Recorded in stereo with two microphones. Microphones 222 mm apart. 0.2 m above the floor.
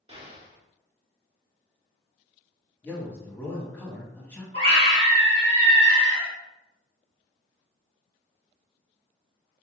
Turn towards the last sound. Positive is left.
turn(degrees=30)  # may be behind; listen again after turning